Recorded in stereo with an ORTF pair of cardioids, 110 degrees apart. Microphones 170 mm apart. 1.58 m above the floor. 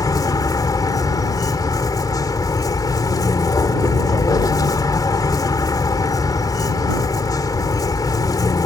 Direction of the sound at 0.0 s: 20° left.